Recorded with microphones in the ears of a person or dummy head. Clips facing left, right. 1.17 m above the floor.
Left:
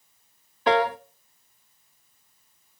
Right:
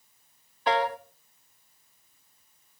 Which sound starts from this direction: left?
A piano, at 0.7 s.